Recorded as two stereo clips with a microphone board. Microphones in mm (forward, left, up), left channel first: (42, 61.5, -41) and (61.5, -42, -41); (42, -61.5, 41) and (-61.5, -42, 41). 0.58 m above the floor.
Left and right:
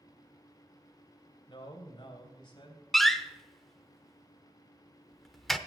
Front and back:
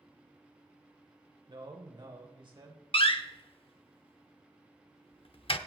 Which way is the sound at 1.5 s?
135° left.